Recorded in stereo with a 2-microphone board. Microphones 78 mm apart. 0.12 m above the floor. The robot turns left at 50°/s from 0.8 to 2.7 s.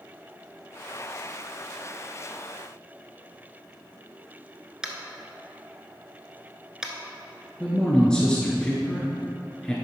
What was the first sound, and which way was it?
Tapping, 10° right (ahead or behind).